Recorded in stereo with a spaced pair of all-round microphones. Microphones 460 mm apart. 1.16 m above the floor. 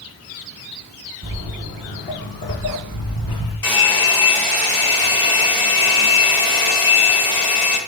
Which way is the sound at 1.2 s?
20° right (ahead or behind).